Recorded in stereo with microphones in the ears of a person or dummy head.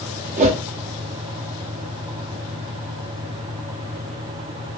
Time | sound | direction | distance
0.4 | a whoosh | 40° right (ahead or behind) | 0.7 m